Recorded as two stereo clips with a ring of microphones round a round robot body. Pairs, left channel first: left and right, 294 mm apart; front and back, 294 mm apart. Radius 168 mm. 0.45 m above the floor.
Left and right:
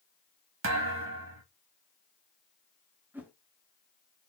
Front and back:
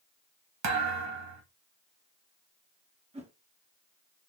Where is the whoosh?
165° right, 1.1 m.